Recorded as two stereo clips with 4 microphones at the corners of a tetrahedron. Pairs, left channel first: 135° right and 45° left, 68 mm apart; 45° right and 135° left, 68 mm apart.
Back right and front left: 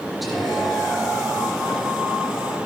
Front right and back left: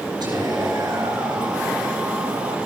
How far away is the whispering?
About 7.5 m.